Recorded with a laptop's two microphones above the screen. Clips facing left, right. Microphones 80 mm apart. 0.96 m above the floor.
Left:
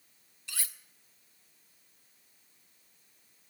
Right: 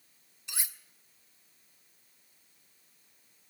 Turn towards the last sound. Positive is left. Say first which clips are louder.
# right 1 dB
turn(degrees=-20)  # may be behind; listen again after turning